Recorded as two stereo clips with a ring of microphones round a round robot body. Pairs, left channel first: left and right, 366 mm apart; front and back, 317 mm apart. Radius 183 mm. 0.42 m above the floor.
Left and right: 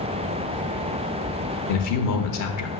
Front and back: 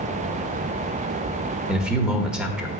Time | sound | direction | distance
1.7 | a man speaking | 95° left | 1.2 m